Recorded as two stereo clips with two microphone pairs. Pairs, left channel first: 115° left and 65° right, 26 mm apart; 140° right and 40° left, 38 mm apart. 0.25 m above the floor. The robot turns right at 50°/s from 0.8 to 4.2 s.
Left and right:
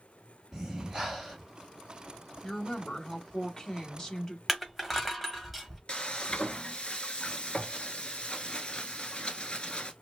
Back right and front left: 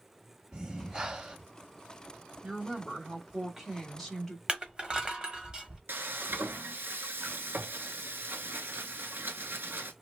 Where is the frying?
60° left, 0.7 m.